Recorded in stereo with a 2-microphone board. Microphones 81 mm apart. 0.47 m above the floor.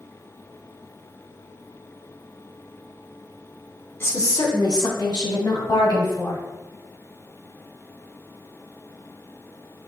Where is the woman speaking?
30° left (ahead or behind), 0.9 m; by 6.4 s 55° left (ahead or behind), 3.5 m.